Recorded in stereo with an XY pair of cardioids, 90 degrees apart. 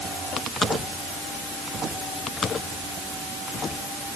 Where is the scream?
No scream in this recording.